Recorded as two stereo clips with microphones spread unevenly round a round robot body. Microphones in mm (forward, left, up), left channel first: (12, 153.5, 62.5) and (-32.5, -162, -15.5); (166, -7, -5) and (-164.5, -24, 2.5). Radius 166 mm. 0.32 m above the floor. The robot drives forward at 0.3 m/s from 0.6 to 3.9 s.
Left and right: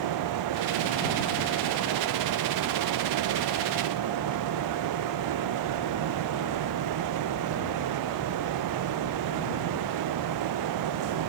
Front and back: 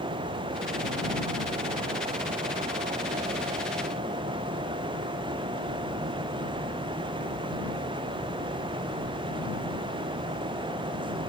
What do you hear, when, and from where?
Only background noise.